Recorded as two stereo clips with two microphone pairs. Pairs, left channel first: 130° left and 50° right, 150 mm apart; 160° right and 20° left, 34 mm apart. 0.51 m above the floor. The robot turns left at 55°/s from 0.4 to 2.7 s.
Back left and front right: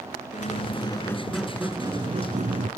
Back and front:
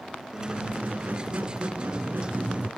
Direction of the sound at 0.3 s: 95° left.